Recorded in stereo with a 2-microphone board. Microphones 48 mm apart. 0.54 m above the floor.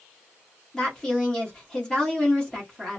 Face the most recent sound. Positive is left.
turn(degrees=15)  # may be behind; listen again after turning